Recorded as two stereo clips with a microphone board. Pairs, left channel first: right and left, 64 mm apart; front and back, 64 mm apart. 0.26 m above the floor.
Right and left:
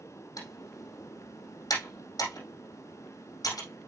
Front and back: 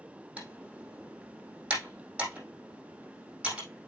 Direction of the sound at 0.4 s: 105° right.